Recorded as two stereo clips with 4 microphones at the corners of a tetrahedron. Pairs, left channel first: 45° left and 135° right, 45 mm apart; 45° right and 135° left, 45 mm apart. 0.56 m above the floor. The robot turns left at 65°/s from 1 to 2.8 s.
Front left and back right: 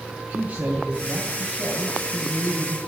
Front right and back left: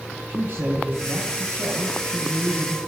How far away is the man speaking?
About 3 m.